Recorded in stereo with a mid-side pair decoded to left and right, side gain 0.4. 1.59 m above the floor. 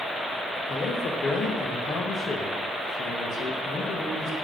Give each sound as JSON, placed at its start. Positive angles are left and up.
{"t": 0.7, "sound": "a man speaking", "azimuth_deg": 60, "distance_m": 1.3}